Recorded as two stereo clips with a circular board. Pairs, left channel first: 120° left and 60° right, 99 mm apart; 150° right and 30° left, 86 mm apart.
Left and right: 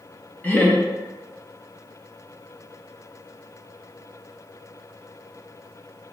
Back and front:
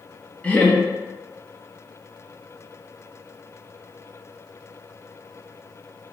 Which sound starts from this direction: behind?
Laughter, at 0.4 s.